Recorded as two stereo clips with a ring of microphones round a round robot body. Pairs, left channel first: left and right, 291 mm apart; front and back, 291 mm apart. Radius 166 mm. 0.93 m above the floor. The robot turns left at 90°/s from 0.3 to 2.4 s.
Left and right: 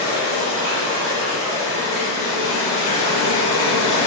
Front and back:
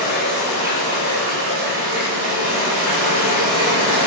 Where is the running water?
10° right, 1.4 m; by 4.1 s 165° left, 1.4 m.